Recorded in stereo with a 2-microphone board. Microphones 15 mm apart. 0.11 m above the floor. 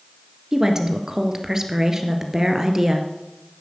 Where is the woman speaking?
35° right (ahead or behind), 2 m.